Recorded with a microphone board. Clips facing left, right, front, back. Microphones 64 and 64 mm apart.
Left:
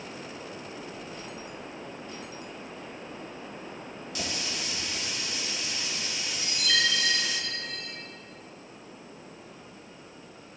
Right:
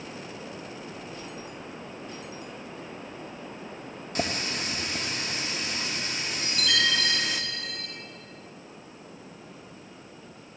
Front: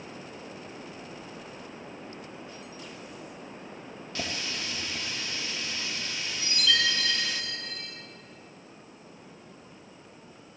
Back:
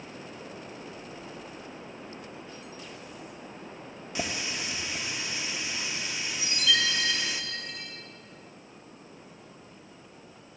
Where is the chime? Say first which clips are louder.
Right 1 dB, even; 100° right, 3 m.